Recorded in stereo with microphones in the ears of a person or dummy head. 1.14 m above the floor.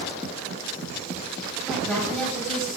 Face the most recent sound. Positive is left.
turn(degrees=10)  # may be behind; listen again after turning